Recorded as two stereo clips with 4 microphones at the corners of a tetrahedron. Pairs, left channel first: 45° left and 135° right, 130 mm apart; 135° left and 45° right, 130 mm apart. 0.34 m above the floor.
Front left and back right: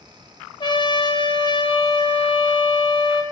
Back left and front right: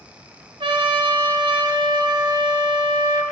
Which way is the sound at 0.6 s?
5° right.